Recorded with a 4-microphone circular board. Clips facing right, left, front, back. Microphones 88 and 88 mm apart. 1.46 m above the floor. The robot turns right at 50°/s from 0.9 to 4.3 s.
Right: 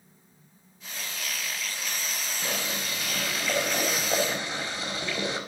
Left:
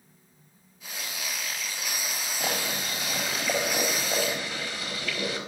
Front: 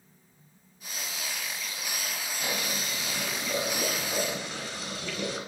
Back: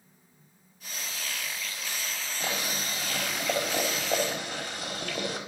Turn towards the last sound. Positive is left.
turn(degrees=-155)